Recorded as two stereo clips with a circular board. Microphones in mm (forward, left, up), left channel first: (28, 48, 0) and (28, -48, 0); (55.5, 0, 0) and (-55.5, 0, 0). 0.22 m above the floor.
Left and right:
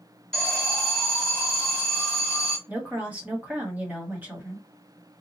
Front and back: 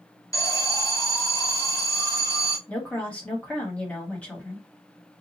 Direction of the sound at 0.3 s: 15° left.